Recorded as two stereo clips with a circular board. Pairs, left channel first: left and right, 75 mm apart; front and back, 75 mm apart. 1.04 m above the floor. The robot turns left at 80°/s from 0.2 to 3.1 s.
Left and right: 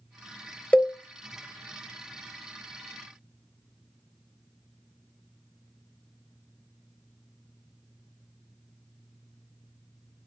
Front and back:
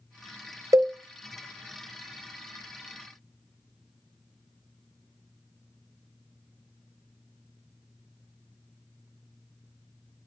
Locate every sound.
0.7 s a cowbell: 160° left, 0.5 m; by 0.9 s 140° left, 0.5 m